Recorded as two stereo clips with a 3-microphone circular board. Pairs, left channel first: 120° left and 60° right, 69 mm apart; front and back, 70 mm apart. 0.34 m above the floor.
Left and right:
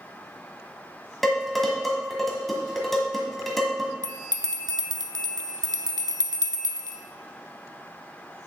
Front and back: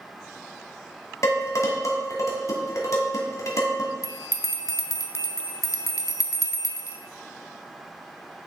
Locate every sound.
1.2 s dishes clattering: 30° left, 1.6 m
4.0 s a bell: 40° right, 0.7 m